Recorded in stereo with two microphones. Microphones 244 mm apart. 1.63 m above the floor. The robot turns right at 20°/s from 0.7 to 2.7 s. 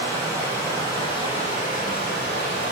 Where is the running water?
10° left, 2.5 m; by 2.7 s 50° left, 2.5 m.